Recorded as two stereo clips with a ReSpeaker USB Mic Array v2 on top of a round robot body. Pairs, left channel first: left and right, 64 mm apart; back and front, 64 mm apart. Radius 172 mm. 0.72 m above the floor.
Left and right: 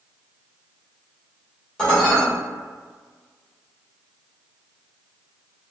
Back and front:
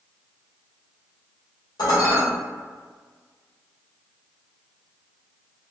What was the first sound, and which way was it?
Dishes clattering, 170° left.